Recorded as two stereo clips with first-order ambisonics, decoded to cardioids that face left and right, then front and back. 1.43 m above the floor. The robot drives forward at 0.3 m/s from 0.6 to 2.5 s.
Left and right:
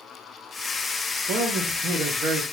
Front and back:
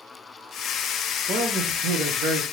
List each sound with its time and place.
1.3 s a man speaking: 130° right, 0.7 m; by 2.4 s 145° right, 1.0 m